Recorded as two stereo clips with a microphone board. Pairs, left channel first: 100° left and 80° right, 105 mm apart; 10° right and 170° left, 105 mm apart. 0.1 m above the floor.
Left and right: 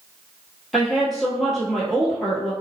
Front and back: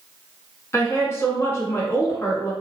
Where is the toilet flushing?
No toilet flushing in this recording.